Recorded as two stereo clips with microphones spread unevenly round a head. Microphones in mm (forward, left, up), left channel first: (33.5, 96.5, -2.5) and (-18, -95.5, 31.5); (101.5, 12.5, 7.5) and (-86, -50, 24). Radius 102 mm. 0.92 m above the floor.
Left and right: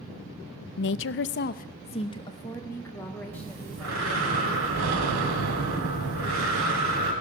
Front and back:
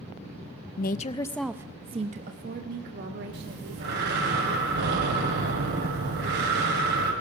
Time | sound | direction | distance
0.8 | a woman speaking | 55° left | 0.5 m
3.3 | breathing | 125° right | 2.5 m